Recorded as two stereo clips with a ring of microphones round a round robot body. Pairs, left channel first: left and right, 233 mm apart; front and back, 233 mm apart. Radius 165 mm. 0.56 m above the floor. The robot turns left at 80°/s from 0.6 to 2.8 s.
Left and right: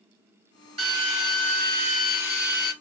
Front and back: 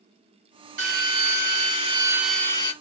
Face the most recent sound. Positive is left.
turn(degrees=50)